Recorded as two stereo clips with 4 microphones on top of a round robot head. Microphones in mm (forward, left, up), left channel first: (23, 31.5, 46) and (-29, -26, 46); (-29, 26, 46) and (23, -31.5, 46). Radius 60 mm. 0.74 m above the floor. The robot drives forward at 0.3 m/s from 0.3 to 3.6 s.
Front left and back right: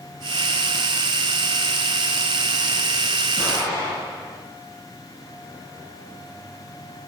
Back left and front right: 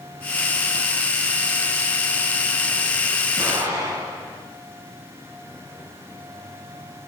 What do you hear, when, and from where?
3.4 s an explosion: 5° right, 9 m